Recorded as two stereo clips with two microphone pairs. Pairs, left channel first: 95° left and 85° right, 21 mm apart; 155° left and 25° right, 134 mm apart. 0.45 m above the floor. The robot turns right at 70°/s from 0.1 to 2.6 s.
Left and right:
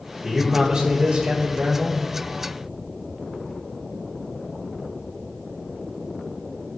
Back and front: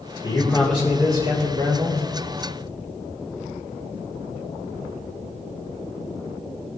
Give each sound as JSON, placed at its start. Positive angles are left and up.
{"t": 0.2, "sound": "a man speaking", "azimuth_deg": -170, "distance_m": 2.0}